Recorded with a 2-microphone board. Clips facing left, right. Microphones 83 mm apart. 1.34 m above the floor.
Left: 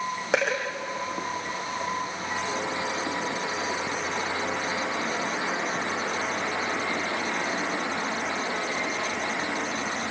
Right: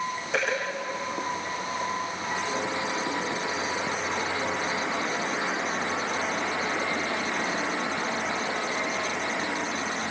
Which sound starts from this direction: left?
A dropped coin, at 0.3 s.